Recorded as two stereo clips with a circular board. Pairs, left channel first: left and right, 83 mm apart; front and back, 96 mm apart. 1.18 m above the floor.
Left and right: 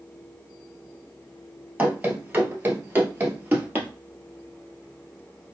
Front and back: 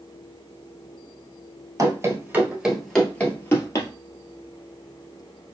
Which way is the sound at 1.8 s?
155° right.